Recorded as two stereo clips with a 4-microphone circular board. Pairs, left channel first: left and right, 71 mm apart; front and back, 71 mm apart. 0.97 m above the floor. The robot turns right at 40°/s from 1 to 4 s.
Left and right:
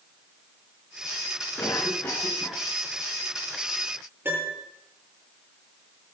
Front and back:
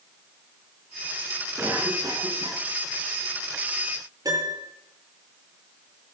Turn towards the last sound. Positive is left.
turn(degrees=-150)